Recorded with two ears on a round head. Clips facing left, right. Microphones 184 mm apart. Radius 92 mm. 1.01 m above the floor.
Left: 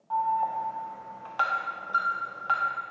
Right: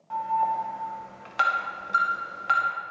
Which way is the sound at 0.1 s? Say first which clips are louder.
Right 1 dB; 25° right (ahead or behind).